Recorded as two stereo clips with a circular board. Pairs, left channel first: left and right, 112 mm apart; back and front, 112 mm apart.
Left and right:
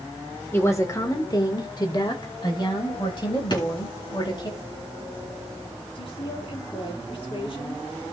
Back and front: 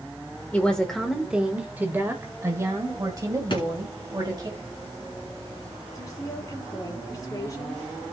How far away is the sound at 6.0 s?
About 3 m.